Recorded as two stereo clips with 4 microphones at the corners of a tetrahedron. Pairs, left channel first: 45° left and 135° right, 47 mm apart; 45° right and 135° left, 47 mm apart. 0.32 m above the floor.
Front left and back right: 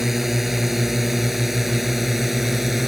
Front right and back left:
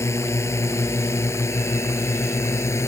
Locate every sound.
0.0 s a drone: 50° right